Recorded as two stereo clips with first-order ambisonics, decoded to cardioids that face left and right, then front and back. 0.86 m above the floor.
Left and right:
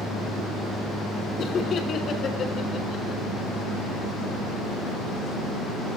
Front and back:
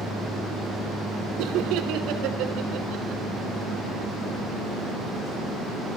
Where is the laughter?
150° left, 3 m.